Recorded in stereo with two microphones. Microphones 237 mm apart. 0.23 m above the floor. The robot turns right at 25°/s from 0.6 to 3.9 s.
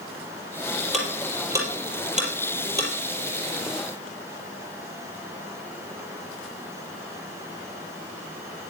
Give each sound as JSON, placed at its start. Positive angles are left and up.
{"t": 0.9, "sound": "ticking", "side_deg": 0, "distance_m": 5.5}